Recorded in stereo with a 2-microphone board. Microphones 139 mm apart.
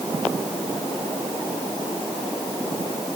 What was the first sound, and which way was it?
Only background noise.